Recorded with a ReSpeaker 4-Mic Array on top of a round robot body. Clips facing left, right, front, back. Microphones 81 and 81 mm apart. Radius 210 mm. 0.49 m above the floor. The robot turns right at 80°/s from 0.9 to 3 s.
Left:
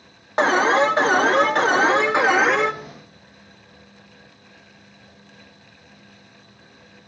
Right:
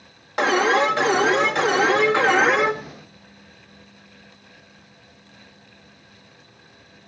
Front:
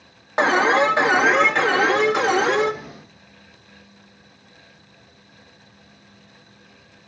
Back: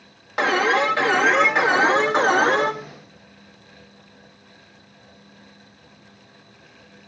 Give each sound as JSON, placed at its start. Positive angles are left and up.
{"t": 0.4, "sound": "an alarm", "azimuth_deg": 55, "distance_m": 2.5}